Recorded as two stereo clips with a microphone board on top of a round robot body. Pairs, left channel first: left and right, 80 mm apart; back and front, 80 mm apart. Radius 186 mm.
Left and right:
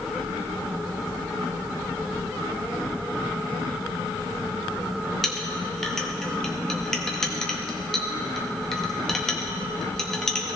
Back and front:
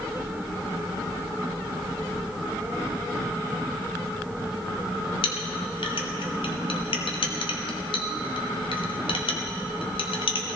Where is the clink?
175° left, 1.1 m.